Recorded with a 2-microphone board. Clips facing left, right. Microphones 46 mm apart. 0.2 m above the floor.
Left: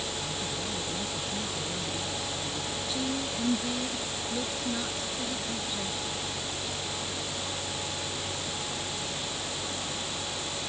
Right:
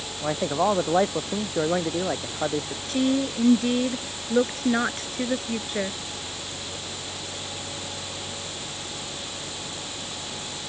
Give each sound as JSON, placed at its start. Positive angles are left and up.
{"t": 0.2, "sound": "a man speaking", "side_deg": -80}
{"t": 2.9, "sound": "a woman speaking", "side_deg": -60}